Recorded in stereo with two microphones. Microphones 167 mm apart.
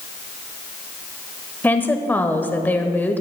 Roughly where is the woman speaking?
Centre.